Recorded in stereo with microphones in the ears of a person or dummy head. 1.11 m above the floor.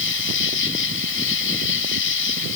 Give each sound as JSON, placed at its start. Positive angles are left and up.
{"t": 0.0, "sound": "an insect", "side_deg": 65}